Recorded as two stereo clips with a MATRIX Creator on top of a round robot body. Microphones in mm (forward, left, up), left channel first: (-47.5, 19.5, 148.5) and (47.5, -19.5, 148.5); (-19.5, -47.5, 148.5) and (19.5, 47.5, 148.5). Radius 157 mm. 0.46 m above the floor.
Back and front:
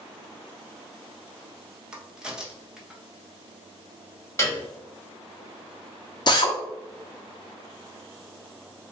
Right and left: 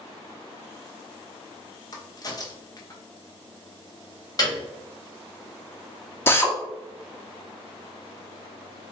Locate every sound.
1.9 s a crack: 100° right, 1.0 m
4.4 s a piano: 150° right, 1.5 m
6.3 s a drill: 175° right, 0.9 m